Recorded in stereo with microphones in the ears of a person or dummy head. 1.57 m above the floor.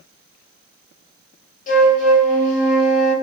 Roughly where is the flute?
Left.